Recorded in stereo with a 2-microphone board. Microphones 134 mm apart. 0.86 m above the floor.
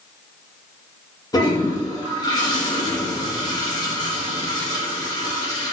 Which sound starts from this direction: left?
A toilet flushing, at 1.3 s.